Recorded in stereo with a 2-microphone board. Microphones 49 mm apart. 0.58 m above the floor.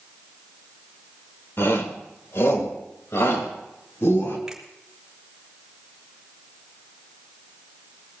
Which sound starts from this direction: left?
A shout, at 1.6 s.